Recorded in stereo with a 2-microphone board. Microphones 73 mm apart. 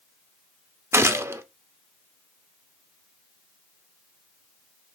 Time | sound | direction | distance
0.9 | a gunshot | 40° right (ahead or behind) | 0.5 m